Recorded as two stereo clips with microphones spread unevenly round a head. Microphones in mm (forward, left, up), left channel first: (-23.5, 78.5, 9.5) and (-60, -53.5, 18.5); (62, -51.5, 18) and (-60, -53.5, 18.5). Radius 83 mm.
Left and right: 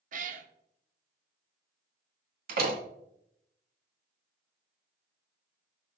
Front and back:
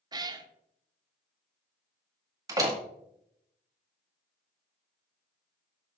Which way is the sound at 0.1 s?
120° right.